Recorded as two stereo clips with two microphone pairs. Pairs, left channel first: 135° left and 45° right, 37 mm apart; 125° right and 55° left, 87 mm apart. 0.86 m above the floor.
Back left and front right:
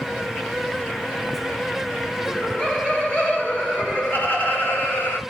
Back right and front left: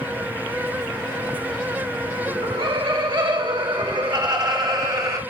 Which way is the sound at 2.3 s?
65° left.